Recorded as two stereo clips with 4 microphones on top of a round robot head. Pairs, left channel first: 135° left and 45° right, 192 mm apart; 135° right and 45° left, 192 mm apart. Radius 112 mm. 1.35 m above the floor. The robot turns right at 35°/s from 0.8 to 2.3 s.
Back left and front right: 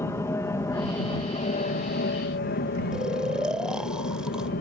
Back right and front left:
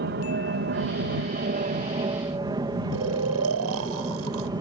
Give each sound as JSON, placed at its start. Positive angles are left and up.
{"t": 0.0, "sound": "an aircraft", "azimuth_deg": 60}
{"t": 2.9, "sound": "snoring", "azimuth_deg": 40}